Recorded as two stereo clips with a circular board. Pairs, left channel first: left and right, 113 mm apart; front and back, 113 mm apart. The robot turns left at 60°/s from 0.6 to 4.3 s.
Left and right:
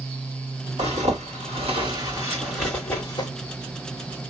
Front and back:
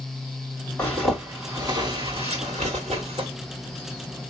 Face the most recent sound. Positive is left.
turn(degrees=80)